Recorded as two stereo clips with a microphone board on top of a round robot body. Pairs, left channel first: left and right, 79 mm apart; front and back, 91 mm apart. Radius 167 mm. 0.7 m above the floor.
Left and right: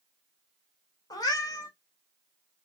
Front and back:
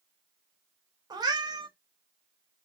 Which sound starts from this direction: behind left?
A cat meowing, at 1.1 s.